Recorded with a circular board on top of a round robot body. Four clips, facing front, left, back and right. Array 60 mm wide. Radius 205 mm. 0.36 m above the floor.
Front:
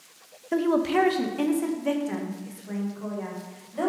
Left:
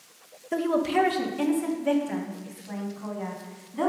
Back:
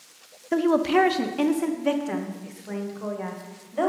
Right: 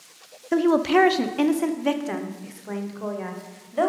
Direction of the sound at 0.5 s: 110° right.